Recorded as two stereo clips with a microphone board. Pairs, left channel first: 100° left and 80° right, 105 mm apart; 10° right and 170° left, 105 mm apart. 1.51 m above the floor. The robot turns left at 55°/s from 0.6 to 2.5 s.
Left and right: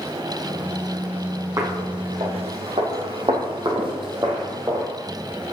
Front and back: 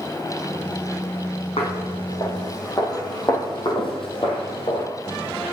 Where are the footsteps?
20° right, 5 m; by 4.9 s 25° right, 3.5 m.